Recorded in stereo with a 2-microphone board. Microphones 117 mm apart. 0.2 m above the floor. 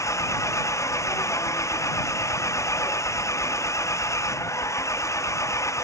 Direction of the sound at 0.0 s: 25° left (ahead or behind).